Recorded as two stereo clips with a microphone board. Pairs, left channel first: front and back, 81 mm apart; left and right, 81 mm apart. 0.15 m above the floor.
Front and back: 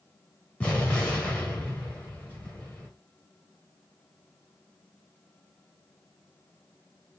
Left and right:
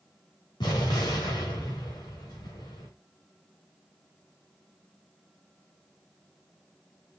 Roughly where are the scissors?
No scissors in this recording.